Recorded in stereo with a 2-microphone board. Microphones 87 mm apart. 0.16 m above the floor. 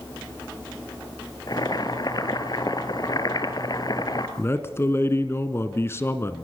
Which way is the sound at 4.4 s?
30° left (ahead or behind).